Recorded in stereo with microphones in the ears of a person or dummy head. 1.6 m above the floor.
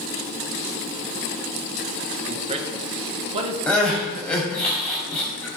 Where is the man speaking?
35° right (ahead or behind), 1.5 m.